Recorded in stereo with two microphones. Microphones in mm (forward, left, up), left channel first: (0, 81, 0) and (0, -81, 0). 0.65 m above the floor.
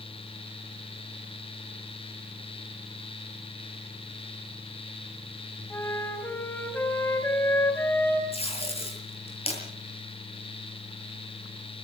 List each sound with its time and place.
5.7 s a flute: 15° left (ahead or behind), 4 m
8.3 s tape being pulled: 40° left (ahead or behind), 7.5 m